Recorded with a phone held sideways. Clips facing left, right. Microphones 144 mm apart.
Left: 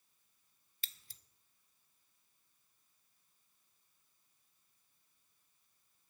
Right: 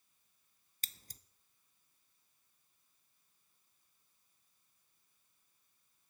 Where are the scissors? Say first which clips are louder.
Right 2 dB; 40° right (ahead or behind), 0.6 m.